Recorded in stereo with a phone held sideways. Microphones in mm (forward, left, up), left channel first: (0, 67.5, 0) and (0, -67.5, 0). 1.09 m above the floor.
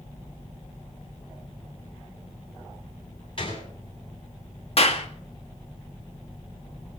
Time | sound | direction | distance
3.4 | a gunshot | 40° left (ahead or behind) | 7.5 m
4.8 | a clap | 45° left (ahead or behind) | 1.6 m